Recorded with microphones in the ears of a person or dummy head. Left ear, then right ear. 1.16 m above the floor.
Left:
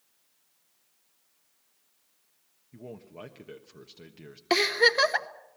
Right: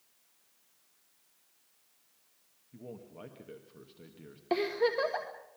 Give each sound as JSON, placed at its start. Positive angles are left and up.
{"t": 2.7, "sound": "a man speaking", "side_deg": 80, "distance_m": 1.2}
{"t": 4.5, "sound": "a giggle", "side_deg": 60, "distance_m": 1.2}